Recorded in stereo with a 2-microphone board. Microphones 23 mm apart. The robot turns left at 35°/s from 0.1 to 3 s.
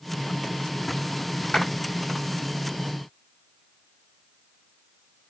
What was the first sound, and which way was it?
A clap, 25° left (ahead or behind).